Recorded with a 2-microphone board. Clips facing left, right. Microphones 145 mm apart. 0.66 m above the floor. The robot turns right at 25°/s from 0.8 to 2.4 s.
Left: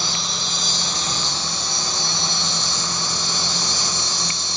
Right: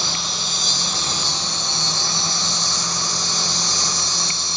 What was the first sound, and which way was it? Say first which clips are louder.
An insect: even; straight behind.